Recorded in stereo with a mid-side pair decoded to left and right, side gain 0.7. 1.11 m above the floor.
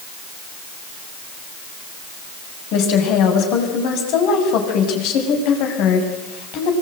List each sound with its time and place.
2.7 s a woman speaking: 65° left, 7.5 m